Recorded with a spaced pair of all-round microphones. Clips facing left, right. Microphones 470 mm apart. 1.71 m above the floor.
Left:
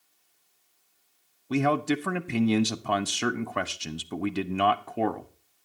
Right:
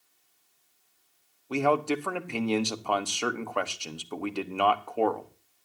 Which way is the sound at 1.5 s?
35° left (ahead or behind).